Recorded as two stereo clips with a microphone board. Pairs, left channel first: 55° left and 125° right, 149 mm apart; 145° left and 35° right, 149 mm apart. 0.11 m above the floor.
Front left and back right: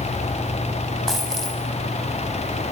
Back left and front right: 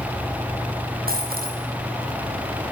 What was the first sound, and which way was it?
A dropped coin, 30° right.